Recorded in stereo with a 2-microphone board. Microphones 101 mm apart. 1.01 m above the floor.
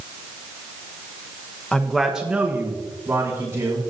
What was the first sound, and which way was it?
A man speaking, 10° left (ahead or behind).